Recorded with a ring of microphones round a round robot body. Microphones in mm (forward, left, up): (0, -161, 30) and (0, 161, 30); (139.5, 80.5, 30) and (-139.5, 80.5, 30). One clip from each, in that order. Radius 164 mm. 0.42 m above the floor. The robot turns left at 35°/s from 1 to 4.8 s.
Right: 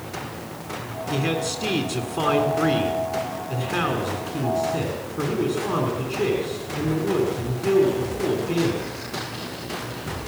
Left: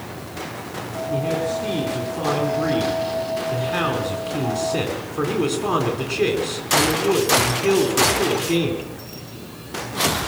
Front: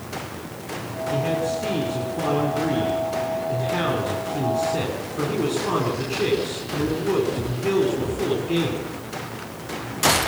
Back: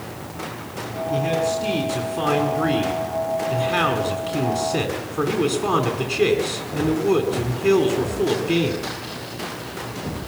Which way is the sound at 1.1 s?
90° right.